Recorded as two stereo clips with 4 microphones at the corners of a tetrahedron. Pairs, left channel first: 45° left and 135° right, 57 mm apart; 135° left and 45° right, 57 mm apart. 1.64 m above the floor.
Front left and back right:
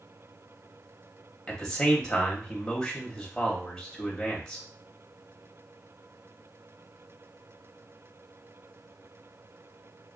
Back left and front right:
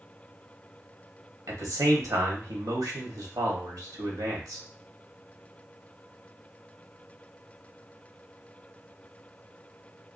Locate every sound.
1.5 s a man speaking: 35° right, 1.0 m